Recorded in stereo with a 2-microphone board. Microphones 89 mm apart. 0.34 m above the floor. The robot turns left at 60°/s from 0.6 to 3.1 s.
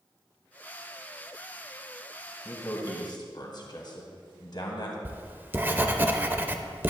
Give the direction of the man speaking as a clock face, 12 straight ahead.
7 o'clock.